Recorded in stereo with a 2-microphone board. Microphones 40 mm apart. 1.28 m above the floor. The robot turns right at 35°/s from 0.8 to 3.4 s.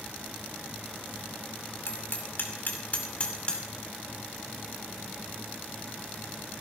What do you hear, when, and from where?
1.9 s hammering: 75° left (ahead or behind), 3 m; by 3.7 s 25° left (ahead or behind), 3 m